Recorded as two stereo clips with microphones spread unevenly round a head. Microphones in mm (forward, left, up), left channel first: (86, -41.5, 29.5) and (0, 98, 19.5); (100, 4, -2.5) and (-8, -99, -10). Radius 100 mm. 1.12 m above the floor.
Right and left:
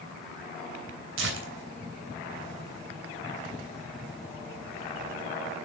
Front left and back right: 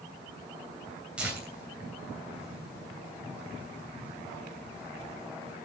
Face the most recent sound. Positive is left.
turn(degrees=140)